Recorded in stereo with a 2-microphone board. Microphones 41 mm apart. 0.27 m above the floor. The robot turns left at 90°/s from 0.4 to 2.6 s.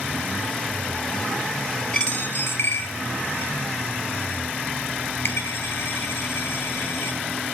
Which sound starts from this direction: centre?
A dropped coin, at 1.9 s.